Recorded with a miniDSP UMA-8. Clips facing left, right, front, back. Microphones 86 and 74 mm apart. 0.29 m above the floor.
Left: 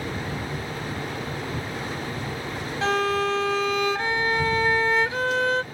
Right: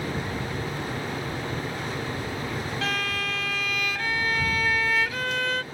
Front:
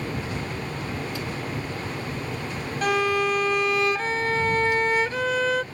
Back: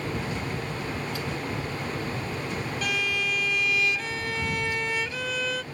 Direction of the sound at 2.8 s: 35° left.